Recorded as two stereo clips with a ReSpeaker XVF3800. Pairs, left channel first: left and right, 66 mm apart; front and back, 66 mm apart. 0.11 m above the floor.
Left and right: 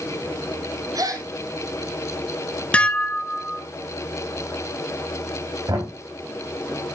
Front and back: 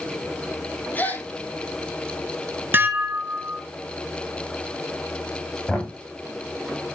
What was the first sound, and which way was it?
A gasp, 65° right.